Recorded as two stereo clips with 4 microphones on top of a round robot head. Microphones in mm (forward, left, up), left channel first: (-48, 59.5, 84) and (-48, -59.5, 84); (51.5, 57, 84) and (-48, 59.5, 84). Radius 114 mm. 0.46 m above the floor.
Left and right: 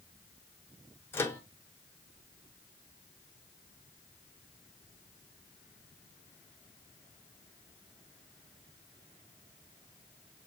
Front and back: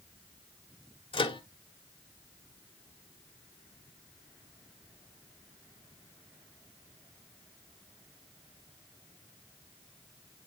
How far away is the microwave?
About 1.7 m.